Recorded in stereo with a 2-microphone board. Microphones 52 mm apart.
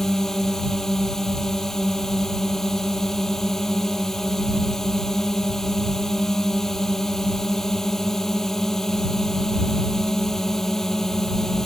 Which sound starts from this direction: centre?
A drone, at 0.0 s.